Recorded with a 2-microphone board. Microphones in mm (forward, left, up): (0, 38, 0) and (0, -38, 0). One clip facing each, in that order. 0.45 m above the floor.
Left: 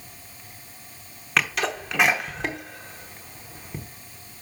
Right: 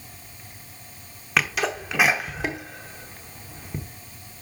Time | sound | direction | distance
1.4 | a sneeze | 5° right (ahead or behind) | 0.7 m